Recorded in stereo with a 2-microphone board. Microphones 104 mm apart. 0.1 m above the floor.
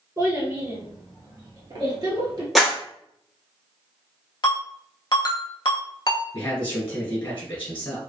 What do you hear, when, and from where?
0.2 s a child speaking: 35° right (ahead or behind), 2.0 m; by 2.5 s 40° right (ahead or behind), 1.5 m
2.5 s a clap: centre (ahead or behind), 1.1 m
4.4 s a ringtone: 45° left (ahead or behind), 0.7 m
6.3 s a man speaking: 25° left (ahead or behind), 1.5 m